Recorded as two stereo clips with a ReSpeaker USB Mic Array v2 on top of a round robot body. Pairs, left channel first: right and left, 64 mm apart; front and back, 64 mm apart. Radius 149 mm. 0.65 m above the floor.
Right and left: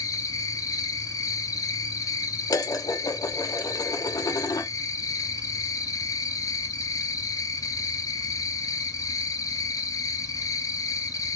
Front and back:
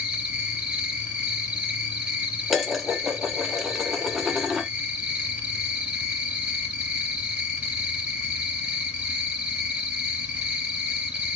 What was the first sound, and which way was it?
An insect, 105° right.